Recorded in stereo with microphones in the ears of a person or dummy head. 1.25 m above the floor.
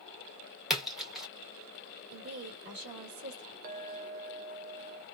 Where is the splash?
5° right (ahead or behind), 1.6 m.